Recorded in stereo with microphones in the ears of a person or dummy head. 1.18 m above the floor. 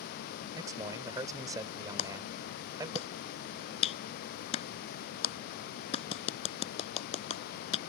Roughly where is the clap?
Left.